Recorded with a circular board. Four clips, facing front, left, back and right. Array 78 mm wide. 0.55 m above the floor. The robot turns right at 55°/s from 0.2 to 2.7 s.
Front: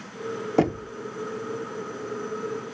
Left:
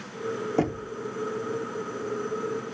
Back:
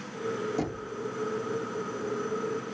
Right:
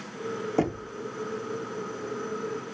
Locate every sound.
0.6 s knocking: straight ahead, 0.6 m; by 0.9 s 20° left, 0.6 m